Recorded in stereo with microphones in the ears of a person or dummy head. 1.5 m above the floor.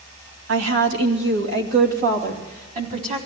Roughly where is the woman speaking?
Right.